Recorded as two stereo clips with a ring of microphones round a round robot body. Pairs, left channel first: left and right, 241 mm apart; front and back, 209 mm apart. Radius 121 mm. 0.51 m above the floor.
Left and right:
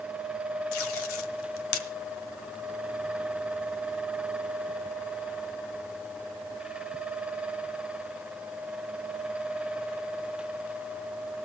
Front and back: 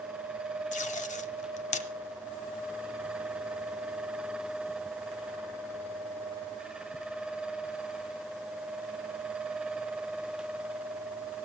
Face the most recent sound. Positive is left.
turn(degrees=55)